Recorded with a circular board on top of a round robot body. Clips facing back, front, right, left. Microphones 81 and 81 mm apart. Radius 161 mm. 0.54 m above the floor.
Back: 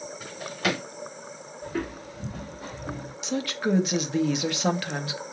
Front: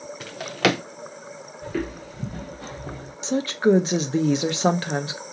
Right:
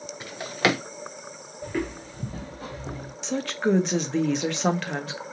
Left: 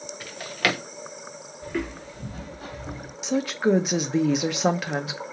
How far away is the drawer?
About 0.5 m.